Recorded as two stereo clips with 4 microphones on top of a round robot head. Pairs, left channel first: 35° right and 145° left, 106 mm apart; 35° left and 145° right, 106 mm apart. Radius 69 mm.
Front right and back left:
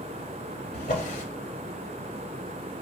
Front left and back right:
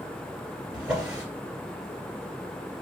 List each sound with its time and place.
0.7 s a drawer: 65° right, 1.5 m